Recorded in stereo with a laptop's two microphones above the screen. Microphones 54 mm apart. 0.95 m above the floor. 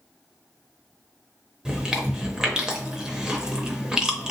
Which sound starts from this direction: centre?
Chewing, at 1.6 s.